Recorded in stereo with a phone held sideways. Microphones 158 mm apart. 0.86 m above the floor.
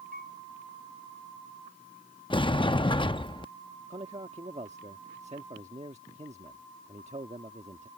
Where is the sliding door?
30° left (ahead or behind).